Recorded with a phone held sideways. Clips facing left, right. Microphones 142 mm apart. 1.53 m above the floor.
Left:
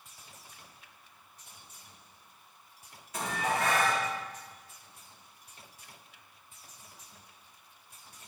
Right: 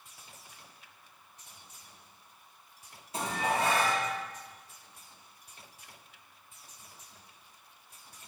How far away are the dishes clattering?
About 2.5 m.